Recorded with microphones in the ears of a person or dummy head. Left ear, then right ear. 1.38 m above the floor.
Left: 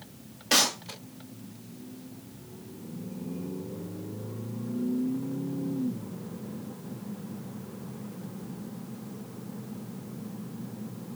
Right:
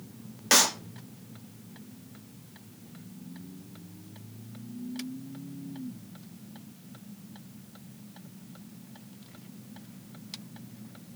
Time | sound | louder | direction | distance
0.5 | a clap | right 1 dB | 60° right (ahead or behind) | 3 m